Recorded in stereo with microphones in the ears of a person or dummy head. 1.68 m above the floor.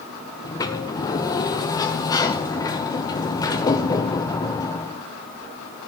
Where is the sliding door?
20° left (ahead or behind), 0.9 m.